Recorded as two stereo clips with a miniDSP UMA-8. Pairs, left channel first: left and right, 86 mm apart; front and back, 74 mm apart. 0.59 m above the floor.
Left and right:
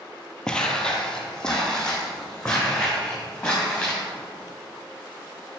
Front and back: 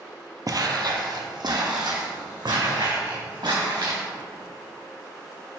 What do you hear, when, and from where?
0.5 s footsteps: 170° left, 0.9 m; by 4.0 s 175° left, 4 m